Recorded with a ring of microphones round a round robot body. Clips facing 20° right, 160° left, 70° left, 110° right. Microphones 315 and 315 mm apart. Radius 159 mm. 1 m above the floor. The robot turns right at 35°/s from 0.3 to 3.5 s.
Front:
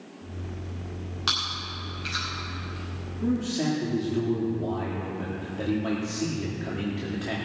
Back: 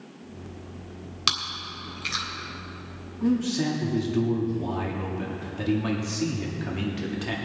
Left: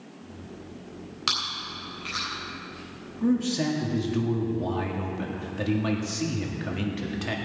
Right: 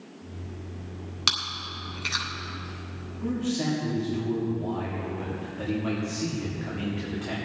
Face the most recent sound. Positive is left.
turn(degrees=90)